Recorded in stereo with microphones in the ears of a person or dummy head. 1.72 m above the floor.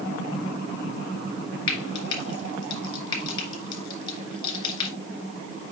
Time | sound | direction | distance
1.7 | frying | 25° left (ahead or behind) | 2.5 m